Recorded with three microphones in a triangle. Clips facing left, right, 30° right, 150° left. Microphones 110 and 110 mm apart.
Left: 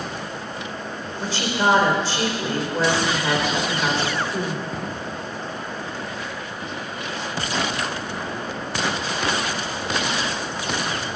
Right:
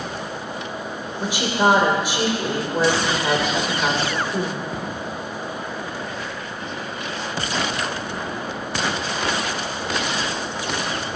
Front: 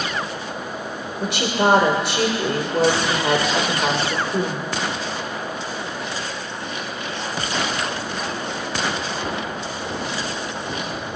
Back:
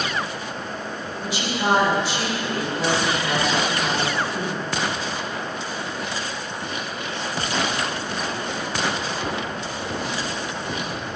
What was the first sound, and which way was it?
A woman speaking, 15° right.